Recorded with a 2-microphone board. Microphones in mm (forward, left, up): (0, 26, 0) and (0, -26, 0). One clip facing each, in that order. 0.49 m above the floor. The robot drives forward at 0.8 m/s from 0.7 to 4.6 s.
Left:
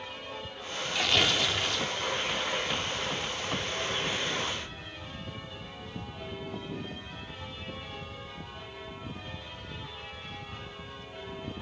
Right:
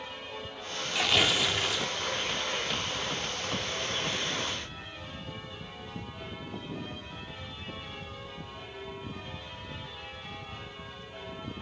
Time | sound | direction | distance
0.9 | tearing paper | 5° right (ahead or behind) | 0.9 m